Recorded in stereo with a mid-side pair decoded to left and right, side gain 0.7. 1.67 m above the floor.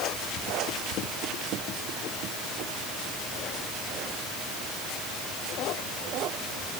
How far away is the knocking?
No knocking in this recording.